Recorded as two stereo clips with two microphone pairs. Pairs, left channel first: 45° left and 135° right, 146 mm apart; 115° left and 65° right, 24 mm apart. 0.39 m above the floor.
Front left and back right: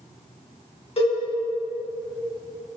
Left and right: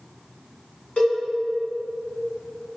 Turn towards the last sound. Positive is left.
turn(degrees=90)